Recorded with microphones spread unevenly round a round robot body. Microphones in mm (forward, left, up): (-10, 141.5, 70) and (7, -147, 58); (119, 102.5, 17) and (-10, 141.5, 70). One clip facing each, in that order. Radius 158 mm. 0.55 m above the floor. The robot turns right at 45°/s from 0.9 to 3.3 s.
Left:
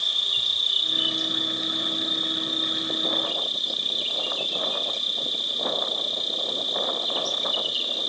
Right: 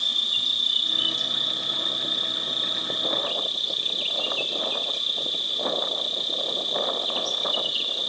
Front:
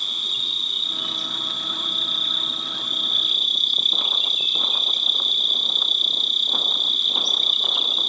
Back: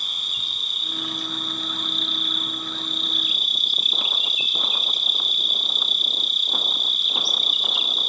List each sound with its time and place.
0.0 s an insect: 85° right, 3 m; by 8.1 s 20° left, 3 m